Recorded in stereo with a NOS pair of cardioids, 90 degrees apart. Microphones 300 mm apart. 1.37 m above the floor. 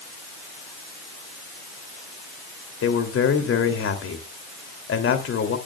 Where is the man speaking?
45° left, 3 m.